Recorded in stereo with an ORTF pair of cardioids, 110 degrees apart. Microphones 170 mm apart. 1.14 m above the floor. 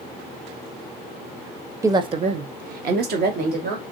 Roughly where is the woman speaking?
Ahead.